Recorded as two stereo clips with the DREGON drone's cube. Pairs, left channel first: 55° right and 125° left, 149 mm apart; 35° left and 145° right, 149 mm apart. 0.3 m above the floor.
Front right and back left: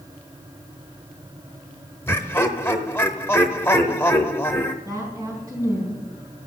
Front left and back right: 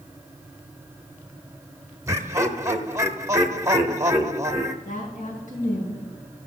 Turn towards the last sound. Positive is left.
turn(degrees=60)